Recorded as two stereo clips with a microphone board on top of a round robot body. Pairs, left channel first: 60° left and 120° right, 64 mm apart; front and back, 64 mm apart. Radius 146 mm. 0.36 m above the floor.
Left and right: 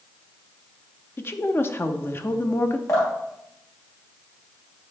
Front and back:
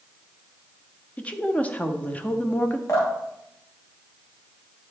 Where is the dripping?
30° left, 2.5 m.